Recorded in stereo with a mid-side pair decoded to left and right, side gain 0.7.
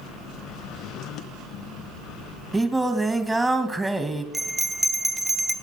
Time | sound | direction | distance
2.5 | singing | 15° right | 1.9 m
4.3 | a bell | 10° right | 1.5 m